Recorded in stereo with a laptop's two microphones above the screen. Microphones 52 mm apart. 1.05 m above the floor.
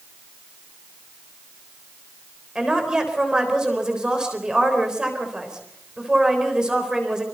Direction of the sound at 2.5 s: 15° right (ahead or behind).